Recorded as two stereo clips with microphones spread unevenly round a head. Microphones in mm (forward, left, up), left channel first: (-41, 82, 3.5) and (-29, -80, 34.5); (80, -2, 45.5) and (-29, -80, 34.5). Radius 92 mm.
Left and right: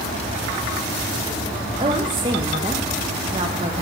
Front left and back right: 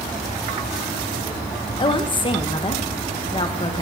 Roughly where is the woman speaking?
Ahead.